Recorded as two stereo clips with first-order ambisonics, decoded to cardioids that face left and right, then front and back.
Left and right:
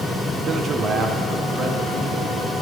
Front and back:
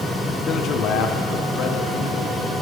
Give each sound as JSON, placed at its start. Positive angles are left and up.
{"t": 0.5, "sound": "a man speaking", "azimuth_deg": -45, "distance_m": 0.6}